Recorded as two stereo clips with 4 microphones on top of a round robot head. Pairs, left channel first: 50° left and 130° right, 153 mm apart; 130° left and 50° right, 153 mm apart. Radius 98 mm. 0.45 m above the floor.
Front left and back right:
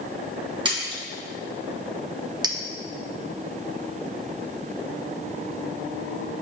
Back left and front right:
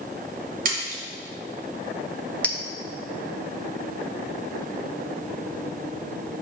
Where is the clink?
160° right, 0.7 m.